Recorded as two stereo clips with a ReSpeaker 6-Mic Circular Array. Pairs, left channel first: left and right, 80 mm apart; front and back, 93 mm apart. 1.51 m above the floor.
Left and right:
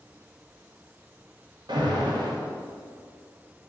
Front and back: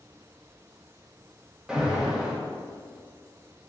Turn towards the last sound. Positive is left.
turn(degrees=-100)